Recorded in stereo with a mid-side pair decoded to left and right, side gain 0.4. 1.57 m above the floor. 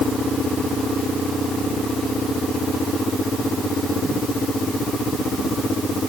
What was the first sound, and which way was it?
Only background noise.